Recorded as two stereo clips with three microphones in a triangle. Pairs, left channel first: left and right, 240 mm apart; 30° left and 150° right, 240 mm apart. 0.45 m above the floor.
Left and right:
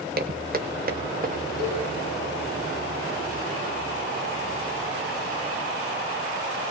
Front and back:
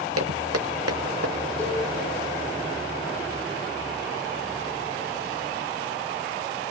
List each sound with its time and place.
0.2 s footsteps: 140° right, 1.2 m; by 1.4 s 145° right, 1.8 m
1.6 s a cowbell: 50° right, 9.5 m